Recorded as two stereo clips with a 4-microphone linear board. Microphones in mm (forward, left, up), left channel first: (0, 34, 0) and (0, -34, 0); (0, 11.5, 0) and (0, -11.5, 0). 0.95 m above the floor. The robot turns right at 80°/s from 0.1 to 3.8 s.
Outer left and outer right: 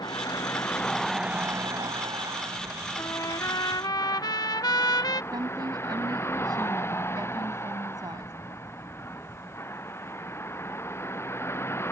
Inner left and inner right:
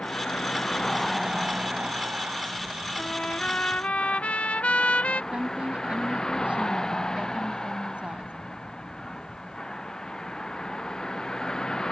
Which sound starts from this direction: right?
A woman speaking, at 5.3 s.